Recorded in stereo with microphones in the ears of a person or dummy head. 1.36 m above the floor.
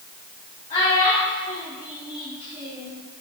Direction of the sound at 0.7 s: 30° left (ahead or behind).